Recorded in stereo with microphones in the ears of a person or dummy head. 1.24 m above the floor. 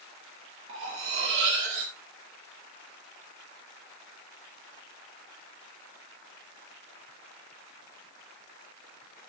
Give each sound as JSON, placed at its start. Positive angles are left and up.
{"t": 0.7, "sound": "cutlery clinking", "side_deg": -70, "distance_m": 2.5}